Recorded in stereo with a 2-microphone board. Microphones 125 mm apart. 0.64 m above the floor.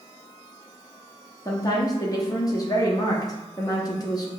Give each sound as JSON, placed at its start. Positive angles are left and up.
{"t": 1.4, "sound": "a woman speaking", "side_deg": 30, "distance_m": 0.7}